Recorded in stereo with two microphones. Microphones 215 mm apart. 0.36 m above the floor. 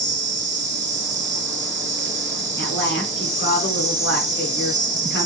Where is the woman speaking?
50° left (ahead or behind), 4.5 m.